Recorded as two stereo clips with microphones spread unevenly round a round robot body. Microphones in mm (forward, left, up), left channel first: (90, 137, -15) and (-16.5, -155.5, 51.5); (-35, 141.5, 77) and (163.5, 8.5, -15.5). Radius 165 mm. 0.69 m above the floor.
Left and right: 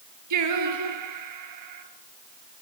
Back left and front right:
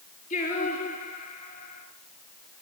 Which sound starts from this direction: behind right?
Singing, at 0.3 s.